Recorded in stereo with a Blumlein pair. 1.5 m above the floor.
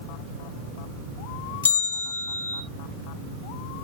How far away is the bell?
About 1.9 m.